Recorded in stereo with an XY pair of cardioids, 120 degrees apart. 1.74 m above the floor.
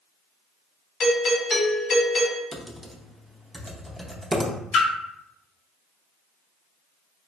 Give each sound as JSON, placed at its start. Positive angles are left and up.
{"t": 1.0, "sound": "a doorbell", "azimuth_deg": 45, "distance_m": 1.0}
{"t": 2.5, "sound": "typing on a keyboard", "azimuth_deg": -15, "distance_m": 0.6}
{"t": 4.7, "sound": "a splash", "azimuth_deg": 65, "distance_m": 0.7}